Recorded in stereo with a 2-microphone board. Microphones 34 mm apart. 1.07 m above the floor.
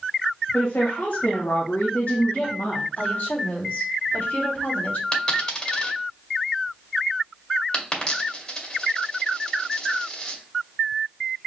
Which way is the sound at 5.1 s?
25° left (ahead or behind).